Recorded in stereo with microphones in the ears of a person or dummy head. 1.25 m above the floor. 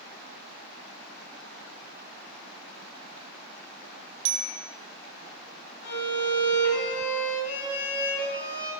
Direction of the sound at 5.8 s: 75° left (ahead or behind).